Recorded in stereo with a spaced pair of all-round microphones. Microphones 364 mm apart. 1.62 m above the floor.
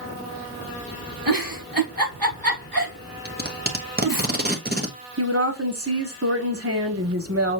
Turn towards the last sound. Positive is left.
turn(degrees=-40)  # may be behind; listen again after turning